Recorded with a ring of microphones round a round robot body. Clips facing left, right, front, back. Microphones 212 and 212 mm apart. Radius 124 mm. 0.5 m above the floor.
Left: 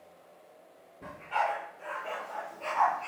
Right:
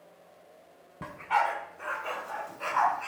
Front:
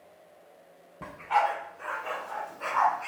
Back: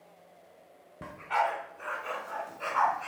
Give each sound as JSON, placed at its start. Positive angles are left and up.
{"t": 1.0, "sound": "a dog barking", "azimuth_deg": -105, "distance_m": 2.0}